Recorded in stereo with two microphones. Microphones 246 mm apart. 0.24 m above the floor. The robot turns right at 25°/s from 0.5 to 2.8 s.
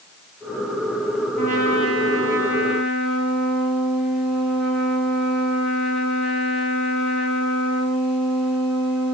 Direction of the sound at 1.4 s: 35° right.